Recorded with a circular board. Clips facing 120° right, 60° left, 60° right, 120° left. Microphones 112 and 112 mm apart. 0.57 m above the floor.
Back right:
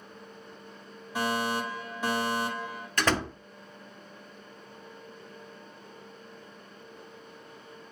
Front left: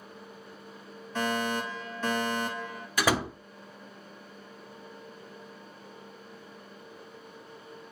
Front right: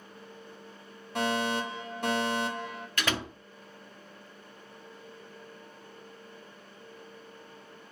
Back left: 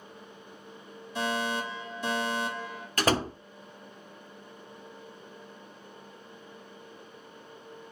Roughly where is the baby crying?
No baby crying in this recording.